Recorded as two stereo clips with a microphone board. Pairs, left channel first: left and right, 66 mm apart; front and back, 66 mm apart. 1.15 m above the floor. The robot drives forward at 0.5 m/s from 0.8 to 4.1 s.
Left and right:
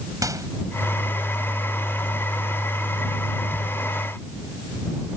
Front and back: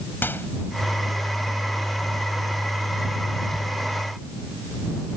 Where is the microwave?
60° right.